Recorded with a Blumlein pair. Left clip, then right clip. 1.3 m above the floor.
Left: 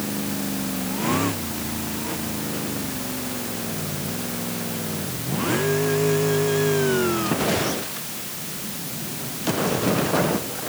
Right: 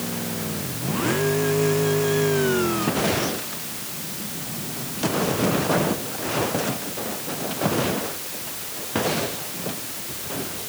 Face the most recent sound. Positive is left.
No sound to turn to.